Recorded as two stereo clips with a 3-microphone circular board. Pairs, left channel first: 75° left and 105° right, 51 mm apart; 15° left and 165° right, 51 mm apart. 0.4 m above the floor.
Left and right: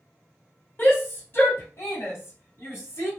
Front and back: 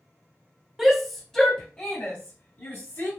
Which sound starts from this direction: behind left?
A shout, at 0.8 s.